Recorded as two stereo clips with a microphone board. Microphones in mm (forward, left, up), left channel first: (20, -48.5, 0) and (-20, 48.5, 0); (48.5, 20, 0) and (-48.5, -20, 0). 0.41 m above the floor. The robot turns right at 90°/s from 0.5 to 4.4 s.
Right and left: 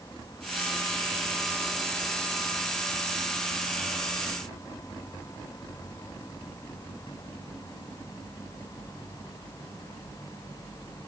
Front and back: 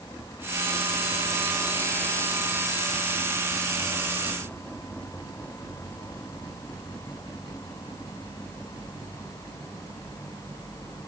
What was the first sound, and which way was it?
Only background noise.